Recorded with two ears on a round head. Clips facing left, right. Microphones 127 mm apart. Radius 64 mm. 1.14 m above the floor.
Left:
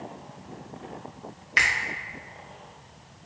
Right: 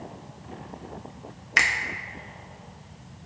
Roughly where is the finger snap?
Right.